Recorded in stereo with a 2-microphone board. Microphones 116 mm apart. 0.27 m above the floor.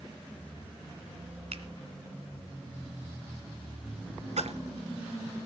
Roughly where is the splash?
Right.